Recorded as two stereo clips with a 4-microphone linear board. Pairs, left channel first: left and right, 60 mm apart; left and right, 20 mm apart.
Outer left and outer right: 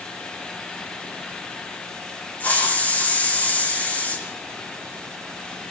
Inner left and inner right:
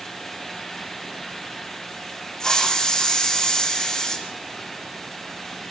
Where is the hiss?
25° left (ahead or behind), 5.5 m.